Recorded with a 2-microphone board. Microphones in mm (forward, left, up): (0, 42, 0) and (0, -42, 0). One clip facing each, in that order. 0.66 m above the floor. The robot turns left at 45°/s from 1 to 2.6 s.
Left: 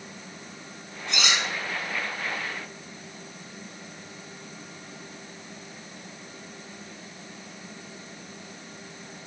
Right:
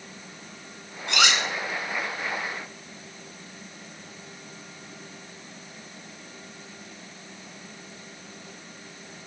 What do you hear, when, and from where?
1.1 s cutlery clinking: 75° right (ahead or behind), 1.2 m; by 1.4 s 80° right, 1.2 m